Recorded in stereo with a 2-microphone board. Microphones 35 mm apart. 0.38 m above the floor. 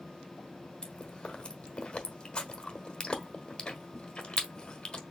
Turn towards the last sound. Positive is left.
turn(degrees=25)  # may be behind; listen again after turning